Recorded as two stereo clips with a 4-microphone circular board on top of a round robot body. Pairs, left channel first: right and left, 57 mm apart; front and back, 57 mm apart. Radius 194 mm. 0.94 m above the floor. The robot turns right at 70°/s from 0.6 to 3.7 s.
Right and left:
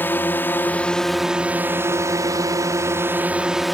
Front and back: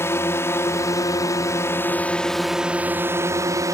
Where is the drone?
35° right; by 3.7 s straight behind.